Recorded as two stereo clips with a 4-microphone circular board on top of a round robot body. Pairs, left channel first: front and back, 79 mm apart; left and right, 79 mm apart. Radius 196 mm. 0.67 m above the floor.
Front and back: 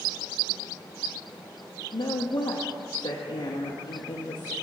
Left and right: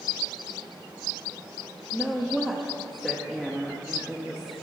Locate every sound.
1.9 s a woman speaking: 5° left, 1.2 m